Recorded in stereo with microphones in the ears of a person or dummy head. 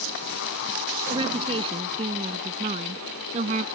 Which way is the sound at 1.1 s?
25° right (ahead or behind).